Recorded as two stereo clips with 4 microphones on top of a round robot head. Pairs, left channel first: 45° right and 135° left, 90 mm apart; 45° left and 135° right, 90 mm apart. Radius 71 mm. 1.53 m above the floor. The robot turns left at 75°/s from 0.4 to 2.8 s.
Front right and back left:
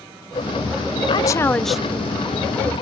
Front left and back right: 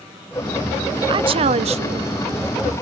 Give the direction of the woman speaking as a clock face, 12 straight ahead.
3 o'clock.